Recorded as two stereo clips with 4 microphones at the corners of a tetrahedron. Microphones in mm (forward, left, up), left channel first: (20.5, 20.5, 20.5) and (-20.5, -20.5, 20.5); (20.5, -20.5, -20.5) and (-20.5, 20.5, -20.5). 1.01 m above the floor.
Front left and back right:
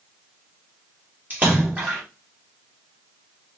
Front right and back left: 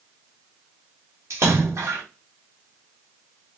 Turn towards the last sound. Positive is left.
turn(degrees=165)